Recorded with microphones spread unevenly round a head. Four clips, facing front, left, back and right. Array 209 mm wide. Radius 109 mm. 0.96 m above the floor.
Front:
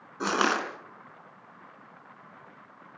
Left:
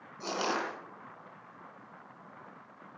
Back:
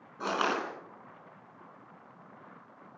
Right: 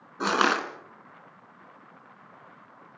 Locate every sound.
0.2 s crushing: 50° right, 3.5 m